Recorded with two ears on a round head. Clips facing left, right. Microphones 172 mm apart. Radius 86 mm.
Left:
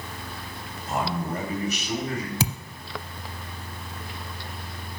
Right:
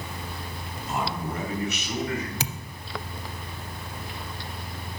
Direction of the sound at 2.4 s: 75° left (ahead or behind).